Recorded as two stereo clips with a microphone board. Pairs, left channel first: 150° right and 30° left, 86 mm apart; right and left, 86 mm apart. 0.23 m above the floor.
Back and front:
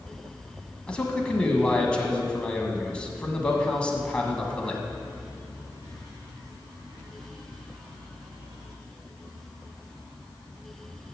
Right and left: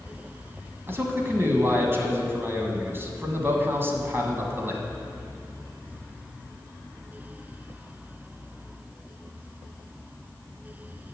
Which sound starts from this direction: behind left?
A man speaking, at 0.9 s.